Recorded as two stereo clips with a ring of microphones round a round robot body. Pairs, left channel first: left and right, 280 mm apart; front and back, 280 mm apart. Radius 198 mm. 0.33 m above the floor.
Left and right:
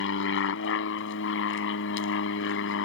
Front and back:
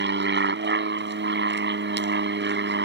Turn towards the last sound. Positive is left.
turn(degrees=140)